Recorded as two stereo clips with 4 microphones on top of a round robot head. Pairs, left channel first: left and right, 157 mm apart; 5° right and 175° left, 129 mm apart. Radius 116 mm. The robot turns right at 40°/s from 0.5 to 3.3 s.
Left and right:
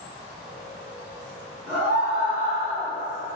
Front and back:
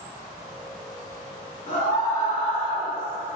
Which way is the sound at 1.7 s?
5° left.